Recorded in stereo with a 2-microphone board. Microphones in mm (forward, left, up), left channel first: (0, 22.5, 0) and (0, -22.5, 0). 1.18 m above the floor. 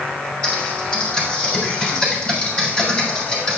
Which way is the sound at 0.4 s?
25° left (ahead or behind).